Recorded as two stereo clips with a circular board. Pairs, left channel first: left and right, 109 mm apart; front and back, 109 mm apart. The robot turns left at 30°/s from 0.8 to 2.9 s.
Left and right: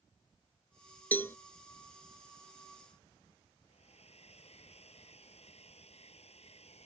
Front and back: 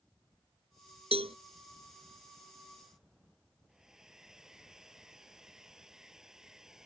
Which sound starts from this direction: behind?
A cowbell, at 1.1 s.